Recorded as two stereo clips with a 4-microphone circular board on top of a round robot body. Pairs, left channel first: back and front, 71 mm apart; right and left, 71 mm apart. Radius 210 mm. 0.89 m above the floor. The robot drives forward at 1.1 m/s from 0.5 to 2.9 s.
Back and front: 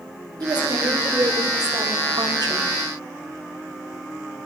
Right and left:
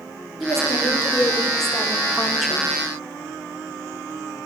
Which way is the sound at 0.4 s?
Straight ahead.